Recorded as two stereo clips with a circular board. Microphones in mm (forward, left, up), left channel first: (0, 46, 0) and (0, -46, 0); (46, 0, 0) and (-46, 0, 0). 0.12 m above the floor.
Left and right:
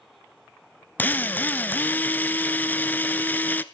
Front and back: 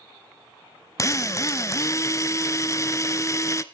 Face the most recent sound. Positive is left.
turn(degrees=30)